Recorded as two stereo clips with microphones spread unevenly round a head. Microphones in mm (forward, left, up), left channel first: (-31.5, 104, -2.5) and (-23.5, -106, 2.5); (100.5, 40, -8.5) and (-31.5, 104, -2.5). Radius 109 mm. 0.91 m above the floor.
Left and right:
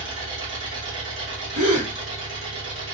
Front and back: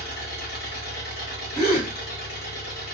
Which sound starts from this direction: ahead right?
An engine running, at 0.0 s.